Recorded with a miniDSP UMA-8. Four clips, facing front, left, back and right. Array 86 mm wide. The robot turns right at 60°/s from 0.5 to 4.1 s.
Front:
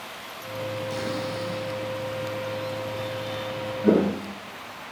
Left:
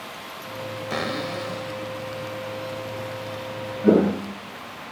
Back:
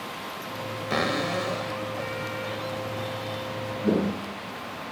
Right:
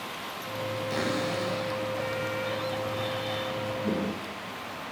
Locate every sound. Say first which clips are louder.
0.9 s a cupboard door: left 2 dB, back 3 dB; 145° left, 6.5 m; by 3.7 s 45° right, 6.5 m
3.8 s footsteps: left 12 dB, front 5 dB; 65° left, 1.0 m; by 4.9 s 55° left, 1.2 m